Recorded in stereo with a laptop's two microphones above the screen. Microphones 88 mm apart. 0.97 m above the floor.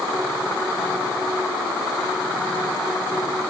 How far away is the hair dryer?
I don't hear a hair dryer.